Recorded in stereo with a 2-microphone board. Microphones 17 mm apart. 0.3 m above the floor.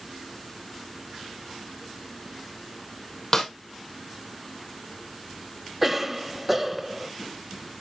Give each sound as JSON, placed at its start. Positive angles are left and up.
{"t": 3.3, "sound": "a snare drum", "side_deg": 40, "distance_m": 2.5}
{"t": 5.8, "sound": "a cough", "side_deg": -15, "distance_m": 1.0}